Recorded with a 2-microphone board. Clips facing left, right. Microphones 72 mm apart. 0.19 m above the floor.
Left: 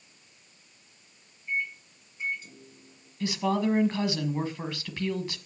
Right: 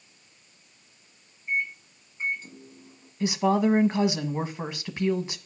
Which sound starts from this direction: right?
A microwave, at 1.5 s.